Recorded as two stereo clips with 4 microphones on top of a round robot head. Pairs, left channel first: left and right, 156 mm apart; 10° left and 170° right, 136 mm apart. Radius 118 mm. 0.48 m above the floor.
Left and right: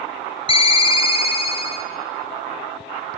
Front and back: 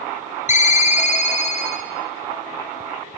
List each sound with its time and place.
0.5 s a ringtone: 35° left, 1.2 m